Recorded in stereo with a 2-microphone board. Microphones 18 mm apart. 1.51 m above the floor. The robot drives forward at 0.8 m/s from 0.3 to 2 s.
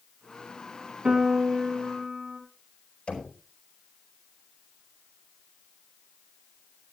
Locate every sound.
1.1 s a piano: 70° right (ahead or behind), 2.5 m; by 2.4 s 55° right (ahead or behind), 3 m
3.1 s knocking: 75° left (ahead or behind), 4.5 m